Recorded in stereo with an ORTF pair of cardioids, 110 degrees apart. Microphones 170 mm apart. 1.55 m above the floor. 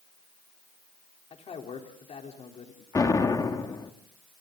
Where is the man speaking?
40° left, 4 m.